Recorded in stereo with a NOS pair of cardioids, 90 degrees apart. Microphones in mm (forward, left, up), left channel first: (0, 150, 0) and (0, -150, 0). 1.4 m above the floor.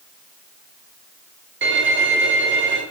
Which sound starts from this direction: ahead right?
A violin, at 1.6 s.